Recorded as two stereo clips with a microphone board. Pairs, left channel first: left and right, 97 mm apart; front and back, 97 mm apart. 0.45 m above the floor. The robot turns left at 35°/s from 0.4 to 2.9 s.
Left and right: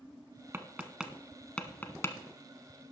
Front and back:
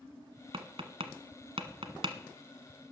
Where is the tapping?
155° right, 0.9 m; by 2.2 s 150° left, 0.9 m.